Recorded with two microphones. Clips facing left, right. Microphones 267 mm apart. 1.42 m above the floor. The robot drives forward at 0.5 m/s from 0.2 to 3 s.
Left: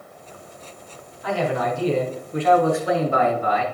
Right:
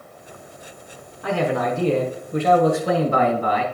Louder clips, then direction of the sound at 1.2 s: Right 2 dB; 65° right (ahead or behind).